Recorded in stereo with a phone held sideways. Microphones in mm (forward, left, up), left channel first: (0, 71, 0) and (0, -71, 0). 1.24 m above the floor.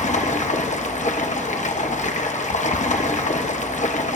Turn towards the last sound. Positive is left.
turn(degrees=65)  # may be behind; listen again after turning